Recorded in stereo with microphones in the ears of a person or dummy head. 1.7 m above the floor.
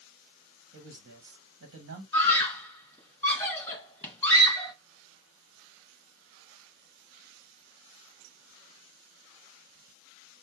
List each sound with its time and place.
0.7 s a man speaking: 65° right (ahead or behind), 1.3 m
2.1 s a scream: 10° left (ahead or behind), 1.6 m